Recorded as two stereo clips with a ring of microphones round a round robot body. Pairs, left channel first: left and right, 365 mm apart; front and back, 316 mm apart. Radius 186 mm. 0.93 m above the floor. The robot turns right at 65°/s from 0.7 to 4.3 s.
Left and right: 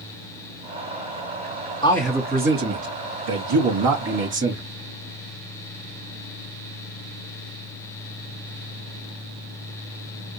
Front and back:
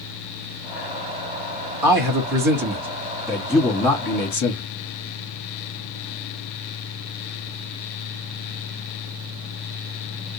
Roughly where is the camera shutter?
No camera shutter in this recording.